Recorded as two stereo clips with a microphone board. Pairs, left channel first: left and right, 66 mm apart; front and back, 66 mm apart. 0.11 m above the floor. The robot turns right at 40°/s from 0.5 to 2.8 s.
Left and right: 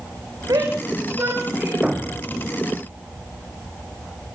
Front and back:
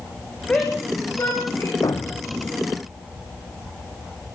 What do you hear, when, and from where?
0.5 s a shout: 70° right, 6.5 m; by 1.7 s 20° right, 6.5 m
1.8 s a thud: 10° right, 1.9 m; by 2.4 s 10° left, 1.9 m